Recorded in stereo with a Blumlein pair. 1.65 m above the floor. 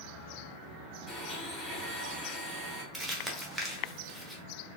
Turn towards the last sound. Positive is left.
turn(degrees=-5)